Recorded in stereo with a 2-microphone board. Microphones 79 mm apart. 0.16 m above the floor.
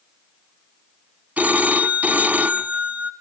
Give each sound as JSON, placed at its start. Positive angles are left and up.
{"t": 1.4, "sound": "a phone ringing", "side_deg": -20, "distance_m": 0.7}